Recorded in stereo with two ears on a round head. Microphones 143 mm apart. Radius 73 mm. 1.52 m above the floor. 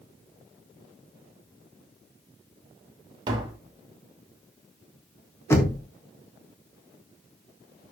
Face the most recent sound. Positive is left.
turn(degrees=15)  # may be behind; listen again after turning